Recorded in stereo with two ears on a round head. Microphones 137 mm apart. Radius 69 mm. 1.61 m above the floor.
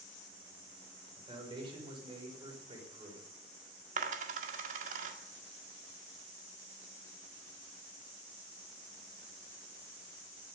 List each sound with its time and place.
1.2 s a man speaking: 35° right (ahead or behind), 6 m
4.0 s a dropped coin: 50° right (ahead or behind), 1.8 m